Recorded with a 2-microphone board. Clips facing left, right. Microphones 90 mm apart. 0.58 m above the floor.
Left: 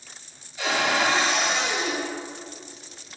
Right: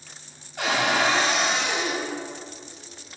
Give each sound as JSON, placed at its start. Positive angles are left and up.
{"t": 0.6, "sound": "a cupboard door", "side_deg": -60, "distance_m": 1.3}